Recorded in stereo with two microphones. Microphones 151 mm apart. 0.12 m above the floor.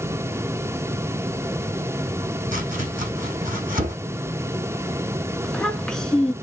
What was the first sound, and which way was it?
Chopping, 60° right (ahead or behind).